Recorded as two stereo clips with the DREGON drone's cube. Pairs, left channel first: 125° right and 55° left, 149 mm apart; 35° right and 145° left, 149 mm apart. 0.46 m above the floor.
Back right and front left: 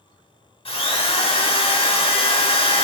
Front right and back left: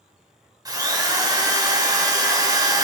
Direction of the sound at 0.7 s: 160° right.